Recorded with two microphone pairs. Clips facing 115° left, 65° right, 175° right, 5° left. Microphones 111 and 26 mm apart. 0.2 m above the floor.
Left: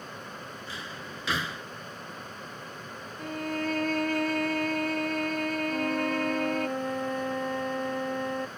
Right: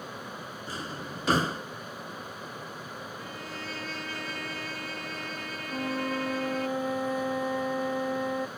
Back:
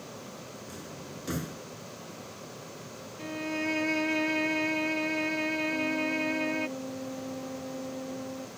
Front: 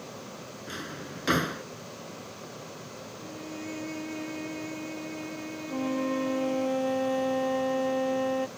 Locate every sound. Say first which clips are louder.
0.7 s a drawer: right 6 dB, front 4 dB; 20° right
3.2 s a violin: left 8 dB, back 8 dB; 145° left
5.7 s a flute: right 1 dB, even; 20° left